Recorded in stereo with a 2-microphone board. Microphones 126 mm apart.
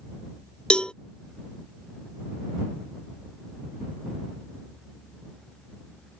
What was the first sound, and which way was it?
A cowbell, 10° left (ahead or behind).